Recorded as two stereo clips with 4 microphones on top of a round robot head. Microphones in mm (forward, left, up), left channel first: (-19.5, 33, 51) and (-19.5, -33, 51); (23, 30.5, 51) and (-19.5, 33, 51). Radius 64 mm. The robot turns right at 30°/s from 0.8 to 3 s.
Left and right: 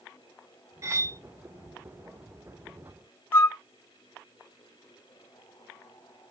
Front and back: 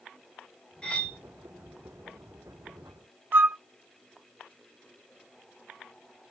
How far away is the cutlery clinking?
About 0.5 m.